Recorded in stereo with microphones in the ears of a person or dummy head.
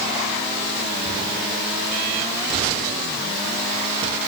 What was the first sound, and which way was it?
Only background noise.